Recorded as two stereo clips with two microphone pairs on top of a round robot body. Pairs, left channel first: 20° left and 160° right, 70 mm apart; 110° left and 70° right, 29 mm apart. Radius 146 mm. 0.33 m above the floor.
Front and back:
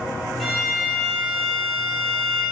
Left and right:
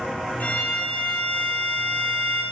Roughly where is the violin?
Left.